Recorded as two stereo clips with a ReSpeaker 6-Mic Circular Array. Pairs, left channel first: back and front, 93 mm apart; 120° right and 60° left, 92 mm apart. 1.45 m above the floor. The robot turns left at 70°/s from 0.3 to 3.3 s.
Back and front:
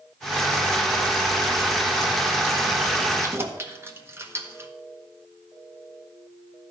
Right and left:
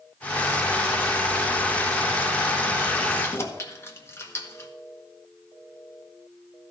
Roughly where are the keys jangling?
Ahead right.